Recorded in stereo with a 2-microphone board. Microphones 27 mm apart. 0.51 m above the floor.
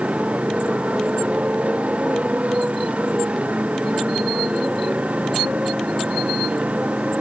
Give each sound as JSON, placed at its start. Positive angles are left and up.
{"t": 0.0, "sound": "a motorcycle", "side_deg": -55}